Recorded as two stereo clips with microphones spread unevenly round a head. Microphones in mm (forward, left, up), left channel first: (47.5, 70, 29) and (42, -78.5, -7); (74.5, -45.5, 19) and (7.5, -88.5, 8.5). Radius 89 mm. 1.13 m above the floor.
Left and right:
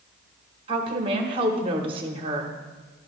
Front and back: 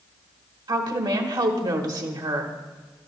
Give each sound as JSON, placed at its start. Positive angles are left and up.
{"t": 0.7, "sound": "a woman speaking", "azimuth_deg": -140, "distance_m": 1.3}